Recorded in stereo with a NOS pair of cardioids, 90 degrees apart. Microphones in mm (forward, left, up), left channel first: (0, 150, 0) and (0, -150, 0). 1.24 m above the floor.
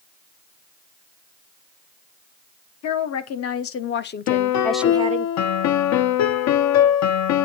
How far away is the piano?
About 0.6 m.